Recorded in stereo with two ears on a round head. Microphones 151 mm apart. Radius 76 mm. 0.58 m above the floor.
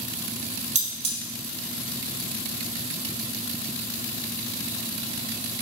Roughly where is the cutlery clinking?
Right.